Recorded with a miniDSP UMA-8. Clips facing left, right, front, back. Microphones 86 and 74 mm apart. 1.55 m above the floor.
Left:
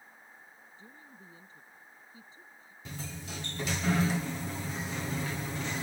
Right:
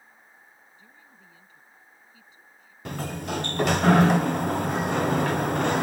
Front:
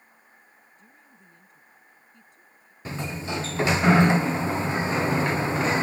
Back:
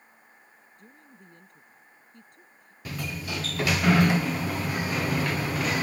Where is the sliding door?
65° right.